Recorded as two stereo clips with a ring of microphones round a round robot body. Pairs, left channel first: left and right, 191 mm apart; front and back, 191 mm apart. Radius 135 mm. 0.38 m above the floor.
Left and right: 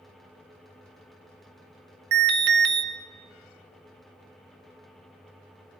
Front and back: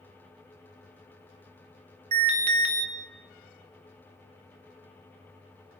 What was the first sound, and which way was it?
An alarm, 120° right.